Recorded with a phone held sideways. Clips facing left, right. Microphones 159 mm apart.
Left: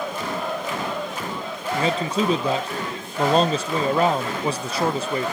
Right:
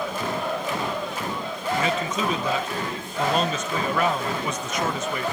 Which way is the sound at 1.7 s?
35° left (ahead or behind).